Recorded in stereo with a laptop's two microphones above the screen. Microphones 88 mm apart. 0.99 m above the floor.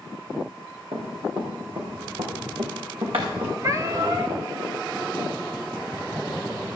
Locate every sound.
0.9 s running footsteps: 70° right (ahead or behind), 4.5 m
3.6 s a cat meowing: 35° right (ahead or behind), 1.2 m